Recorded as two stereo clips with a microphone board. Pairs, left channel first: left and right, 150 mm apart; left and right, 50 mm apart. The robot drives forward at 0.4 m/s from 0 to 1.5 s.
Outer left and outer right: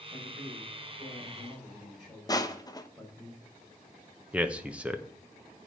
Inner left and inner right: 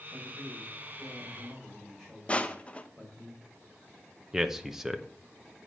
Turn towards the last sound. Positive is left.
turn(degrees=-10)  # may be behind; listen again after turning